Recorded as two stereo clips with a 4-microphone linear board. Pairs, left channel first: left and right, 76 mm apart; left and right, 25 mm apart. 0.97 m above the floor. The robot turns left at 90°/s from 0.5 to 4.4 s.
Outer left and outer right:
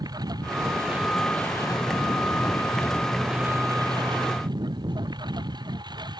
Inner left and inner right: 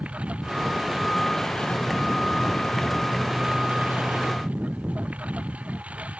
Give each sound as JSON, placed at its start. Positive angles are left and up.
{"t": 0.0, "sound": "a lawn mower", "azimuth_deg": -120}